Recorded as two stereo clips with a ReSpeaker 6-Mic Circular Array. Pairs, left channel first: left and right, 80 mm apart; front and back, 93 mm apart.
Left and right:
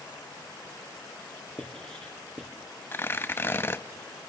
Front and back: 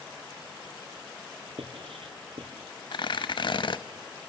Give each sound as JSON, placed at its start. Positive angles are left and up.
{"t": 1.6, "sound": "writing", "azimuth_deg": 170, "distance_m": 2.5}
{"t": 2.9, "sound": "tearing paper", "azimuth_deg": 30, "distance_m": 0.6}